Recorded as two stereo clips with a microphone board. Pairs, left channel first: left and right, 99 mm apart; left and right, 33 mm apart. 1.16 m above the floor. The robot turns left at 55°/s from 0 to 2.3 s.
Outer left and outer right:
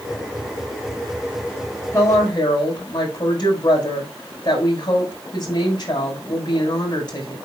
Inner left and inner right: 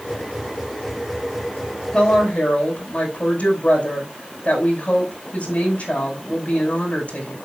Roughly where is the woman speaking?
Left.